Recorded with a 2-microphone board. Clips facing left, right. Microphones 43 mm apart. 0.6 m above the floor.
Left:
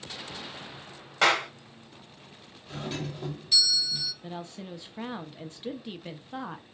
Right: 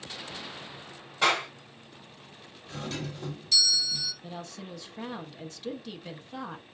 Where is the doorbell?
10° left (ahead or behind), 1.5 m.